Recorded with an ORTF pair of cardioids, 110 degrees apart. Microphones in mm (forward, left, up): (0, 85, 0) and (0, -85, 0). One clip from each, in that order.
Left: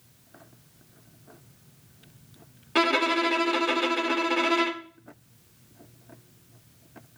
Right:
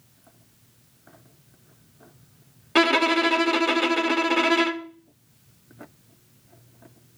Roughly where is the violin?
Ahead.